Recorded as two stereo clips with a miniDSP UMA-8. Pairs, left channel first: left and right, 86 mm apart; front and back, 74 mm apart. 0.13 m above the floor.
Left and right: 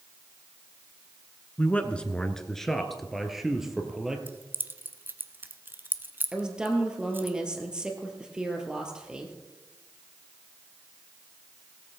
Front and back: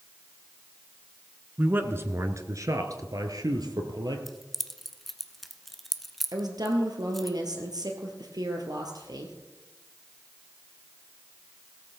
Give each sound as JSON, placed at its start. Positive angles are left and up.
{"t": 1.6, "sound": "a man speaking", "azimuth_deg": 145, "distance_m": 1.1}
{"t": 4.3, "sound": "keys jangling", "azimuth_deg": -85, "distance_m": 0.8}
{"t": 6.3, "sound": "a woman speaking", "azimuth_deg": -170, "distance_m": 2.5}